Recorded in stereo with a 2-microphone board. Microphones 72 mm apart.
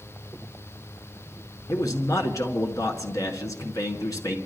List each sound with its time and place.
1.7 s a man speaking: 50° left (ahead or behind), 1.9 m